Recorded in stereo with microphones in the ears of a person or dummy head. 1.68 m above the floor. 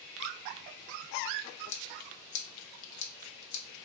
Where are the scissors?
90° left, 0.8 m.